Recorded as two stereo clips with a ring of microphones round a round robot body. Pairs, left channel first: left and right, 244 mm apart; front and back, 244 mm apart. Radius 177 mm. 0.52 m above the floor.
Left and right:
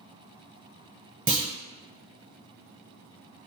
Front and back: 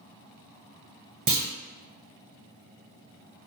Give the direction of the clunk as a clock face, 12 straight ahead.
5 o'clock.